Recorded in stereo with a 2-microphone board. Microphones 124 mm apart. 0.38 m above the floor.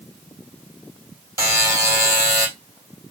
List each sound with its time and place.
1.4 s a buzzer: 20° right (ahead or behind), 2 m